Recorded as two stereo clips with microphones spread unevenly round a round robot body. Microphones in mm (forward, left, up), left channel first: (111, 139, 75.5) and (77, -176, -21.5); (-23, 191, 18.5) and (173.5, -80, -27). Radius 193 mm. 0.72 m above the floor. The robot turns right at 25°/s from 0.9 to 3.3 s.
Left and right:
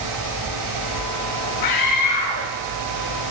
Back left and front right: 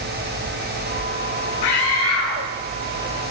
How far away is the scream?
About 2.5 m.